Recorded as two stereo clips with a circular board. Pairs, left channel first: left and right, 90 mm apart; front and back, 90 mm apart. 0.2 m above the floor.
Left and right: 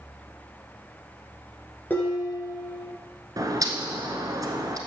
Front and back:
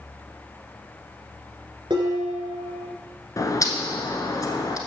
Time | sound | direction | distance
1.9 | dishes clattering | 160° left | 2 m
3.4 | a bird | 45° right | 1.1 m